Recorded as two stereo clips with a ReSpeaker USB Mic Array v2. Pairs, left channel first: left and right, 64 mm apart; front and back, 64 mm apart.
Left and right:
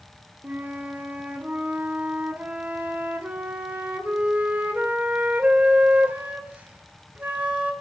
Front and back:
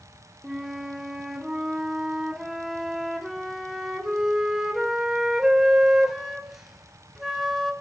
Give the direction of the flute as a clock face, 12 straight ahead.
3 o'clock.